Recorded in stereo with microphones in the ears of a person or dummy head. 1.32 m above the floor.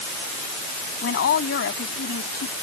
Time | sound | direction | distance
1.0 | a woman speaking | 70° left (ahead or behind) | ?